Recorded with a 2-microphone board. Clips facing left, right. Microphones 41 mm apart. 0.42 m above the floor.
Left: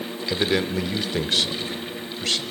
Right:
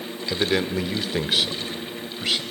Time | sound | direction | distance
0.3 | a man speaking | centre (ahead or behind) | 0.8 m